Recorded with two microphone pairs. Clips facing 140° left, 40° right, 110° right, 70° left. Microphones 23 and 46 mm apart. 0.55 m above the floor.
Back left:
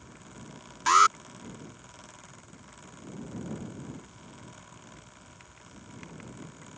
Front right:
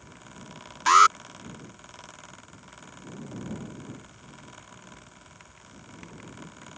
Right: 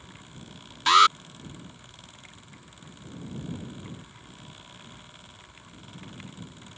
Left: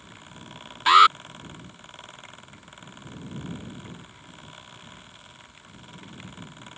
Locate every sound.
0.9 s an alarm: 15° left